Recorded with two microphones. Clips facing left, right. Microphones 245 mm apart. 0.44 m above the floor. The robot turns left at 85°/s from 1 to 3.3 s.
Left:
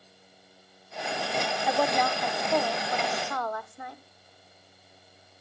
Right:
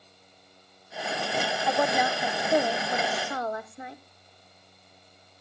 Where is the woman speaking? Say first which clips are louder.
Even; 5° left (ahead or behind), 0.8 m; by 4.0 s 20° right (ahead or behind), 0.8 m.